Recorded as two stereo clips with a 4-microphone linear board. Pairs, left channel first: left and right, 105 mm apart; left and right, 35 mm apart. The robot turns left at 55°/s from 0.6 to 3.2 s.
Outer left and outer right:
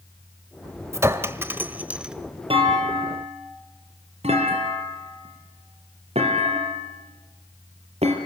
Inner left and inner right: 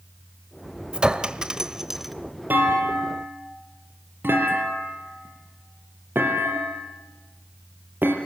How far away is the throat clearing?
I don't hear throat clearing.